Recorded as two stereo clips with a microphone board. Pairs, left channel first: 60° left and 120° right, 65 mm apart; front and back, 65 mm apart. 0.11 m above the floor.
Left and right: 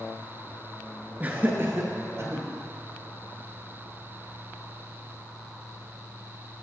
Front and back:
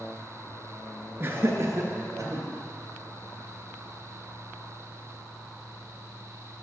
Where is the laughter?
165° right, 1.3 m; by 2.5 s 155° right, 2.5 m.